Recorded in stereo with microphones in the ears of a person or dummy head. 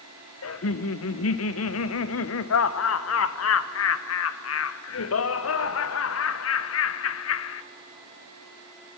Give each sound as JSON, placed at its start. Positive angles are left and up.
{"t": 0.4, "sound": "laughter", "side_deg": 75, "distance_m": 0.7}